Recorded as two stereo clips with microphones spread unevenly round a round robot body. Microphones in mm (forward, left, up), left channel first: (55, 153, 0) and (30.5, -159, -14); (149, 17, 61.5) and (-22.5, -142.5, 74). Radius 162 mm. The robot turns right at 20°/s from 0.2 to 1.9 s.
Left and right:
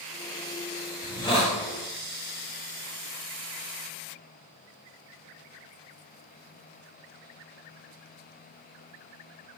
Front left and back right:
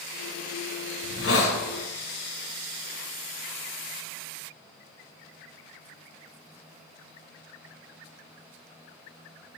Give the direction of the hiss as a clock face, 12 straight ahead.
12 o'clock.